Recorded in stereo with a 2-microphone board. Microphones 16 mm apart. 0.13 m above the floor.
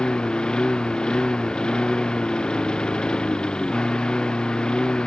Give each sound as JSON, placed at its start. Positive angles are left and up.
{"t": 0.0, "sound": "a lawn mower", "side_deg": 80}